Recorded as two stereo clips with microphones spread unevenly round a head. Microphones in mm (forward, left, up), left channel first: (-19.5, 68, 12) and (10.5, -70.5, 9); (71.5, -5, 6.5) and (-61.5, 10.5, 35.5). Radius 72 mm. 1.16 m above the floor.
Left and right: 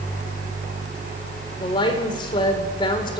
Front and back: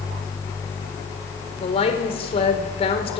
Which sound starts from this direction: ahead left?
A woman speaking, at 1.6 s.